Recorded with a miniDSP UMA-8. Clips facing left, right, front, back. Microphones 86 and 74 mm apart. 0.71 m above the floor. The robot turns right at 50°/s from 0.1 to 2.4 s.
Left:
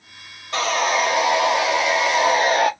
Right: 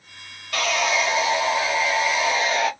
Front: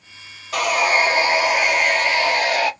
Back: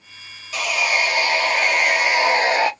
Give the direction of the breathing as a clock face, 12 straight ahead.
I don't hear breathing.